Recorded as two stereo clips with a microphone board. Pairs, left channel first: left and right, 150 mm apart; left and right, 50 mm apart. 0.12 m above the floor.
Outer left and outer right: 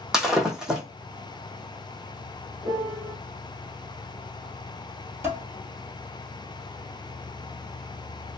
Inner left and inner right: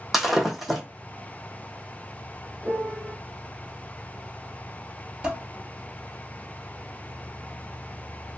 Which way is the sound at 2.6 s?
5° right (ahead or behind).